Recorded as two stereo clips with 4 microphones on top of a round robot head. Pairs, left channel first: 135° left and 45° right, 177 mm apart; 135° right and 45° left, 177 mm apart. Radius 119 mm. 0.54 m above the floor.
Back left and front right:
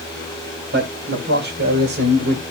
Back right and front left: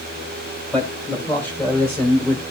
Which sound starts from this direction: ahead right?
A man speaking, at 0.7 s.